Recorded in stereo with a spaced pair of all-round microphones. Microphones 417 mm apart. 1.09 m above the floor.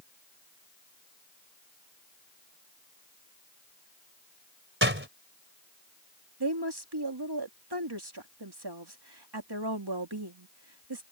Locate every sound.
4.8 s a door slam: 30° right (ahead or behind)
6.4 s a woman speaking: 70° right (ahead or behind)